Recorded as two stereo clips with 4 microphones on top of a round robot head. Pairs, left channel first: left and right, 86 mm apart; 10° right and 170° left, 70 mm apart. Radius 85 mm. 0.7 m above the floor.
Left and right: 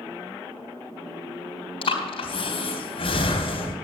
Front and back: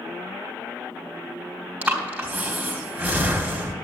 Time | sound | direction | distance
1.8 | breathing | 110° left | 3.5 m